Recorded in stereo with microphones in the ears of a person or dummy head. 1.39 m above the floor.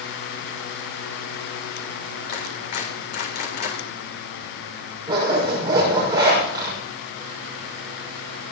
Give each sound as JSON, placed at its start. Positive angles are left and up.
{"t": 2.3, "sound": "a clap", "side_deg": 55, "distance_m": 3.0}
{"t": 5.1, "sound": "a zipper", "side_deg": -15, "distance_m": 6.0}